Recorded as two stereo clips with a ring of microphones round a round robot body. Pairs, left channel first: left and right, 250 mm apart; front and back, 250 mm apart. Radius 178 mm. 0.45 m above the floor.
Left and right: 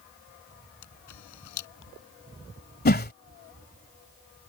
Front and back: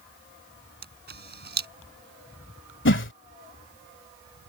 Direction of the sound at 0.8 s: 130° left.